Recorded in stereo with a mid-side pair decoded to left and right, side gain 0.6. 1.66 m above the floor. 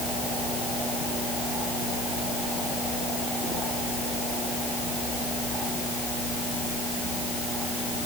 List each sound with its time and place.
Only background noise.